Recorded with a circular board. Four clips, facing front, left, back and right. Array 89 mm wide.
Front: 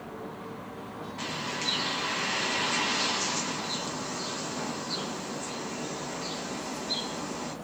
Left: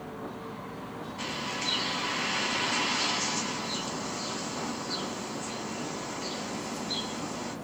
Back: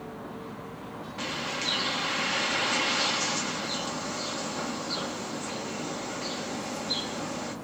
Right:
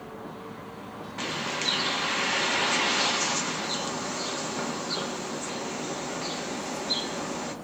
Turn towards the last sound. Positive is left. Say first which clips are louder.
# right 4 dB, back 2 dB
turn(degrees=-105)